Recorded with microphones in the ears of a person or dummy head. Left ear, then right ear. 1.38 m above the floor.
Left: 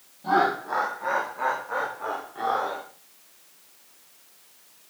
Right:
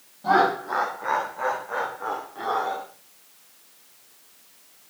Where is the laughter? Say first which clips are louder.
Right 2 dB; 20° right (ahead or behind), 1.3 m; by 2.8 s 15° left (ahead or behind), 3 m.